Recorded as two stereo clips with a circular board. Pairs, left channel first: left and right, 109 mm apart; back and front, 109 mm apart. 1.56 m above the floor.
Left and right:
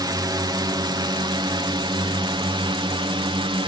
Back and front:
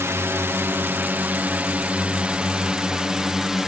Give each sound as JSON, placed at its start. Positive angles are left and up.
{"t": 0.0, "sound": "a drone", "azimuth_deg": -60}